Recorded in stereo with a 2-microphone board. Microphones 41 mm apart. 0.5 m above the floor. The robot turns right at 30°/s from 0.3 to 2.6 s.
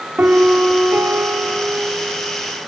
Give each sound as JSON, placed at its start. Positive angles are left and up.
{"t": 0.2, "sound": "a piano", "azimuth_deg": -125, "distance_m": 1.6}